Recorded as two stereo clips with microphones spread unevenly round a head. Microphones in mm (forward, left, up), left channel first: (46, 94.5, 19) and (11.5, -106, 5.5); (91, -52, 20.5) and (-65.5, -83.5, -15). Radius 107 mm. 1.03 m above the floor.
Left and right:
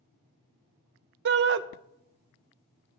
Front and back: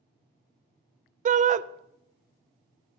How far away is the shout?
About 0.5 m.